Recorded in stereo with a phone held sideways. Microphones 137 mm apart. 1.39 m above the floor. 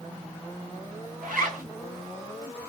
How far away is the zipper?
About 4 m.